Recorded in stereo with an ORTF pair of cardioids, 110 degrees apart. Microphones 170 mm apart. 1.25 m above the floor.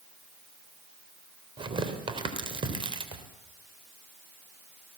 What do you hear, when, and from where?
1.6 s tearing paper: 30° right, 3.5 m